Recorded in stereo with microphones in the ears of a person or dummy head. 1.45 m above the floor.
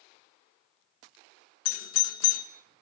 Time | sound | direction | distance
1.6 | a doorbell | 85° left | 2 m